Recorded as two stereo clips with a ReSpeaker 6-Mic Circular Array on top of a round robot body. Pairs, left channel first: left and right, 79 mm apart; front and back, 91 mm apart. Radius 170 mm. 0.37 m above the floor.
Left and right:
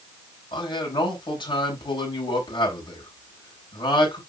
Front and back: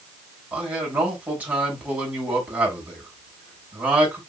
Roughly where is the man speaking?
Left.